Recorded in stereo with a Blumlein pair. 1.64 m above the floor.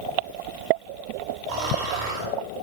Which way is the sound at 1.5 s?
40° right.